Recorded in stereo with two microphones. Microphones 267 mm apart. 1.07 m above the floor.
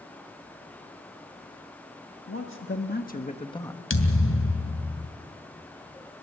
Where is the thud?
55° left (ahead or behind), 2.5 m.